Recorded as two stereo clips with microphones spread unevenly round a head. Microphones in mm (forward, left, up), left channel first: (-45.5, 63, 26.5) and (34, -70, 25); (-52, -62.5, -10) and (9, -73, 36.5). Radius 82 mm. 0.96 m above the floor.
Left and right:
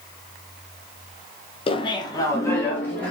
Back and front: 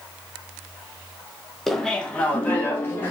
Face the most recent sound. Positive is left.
turn(degrees=-160)